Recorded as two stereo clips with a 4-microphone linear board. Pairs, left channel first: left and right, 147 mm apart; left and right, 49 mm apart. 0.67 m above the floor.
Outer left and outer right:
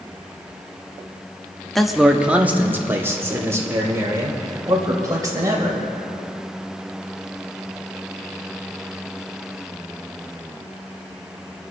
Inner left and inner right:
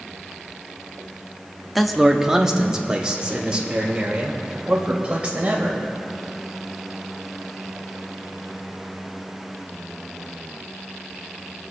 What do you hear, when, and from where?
1.8 s a man speaking: centre (ahead or behind), 0.9 m; by 5.8 s 25° right (ahead or behind), 3.5 m